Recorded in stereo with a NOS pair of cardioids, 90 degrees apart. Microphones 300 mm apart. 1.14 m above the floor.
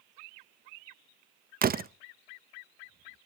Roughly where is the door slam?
Ahead right.